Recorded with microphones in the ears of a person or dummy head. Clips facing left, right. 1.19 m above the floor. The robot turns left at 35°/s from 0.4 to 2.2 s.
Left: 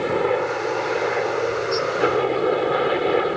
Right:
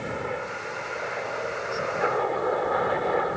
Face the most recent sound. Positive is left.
turn(degrees=40)